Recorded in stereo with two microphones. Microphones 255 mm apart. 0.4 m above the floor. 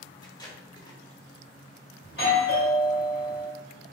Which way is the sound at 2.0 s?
40° left (ahead or behind).